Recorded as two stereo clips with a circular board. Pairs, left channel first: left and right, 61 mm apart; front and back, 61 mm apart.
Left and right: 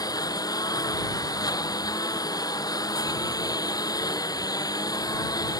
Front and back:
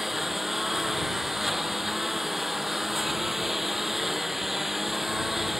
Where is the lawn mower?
95° left.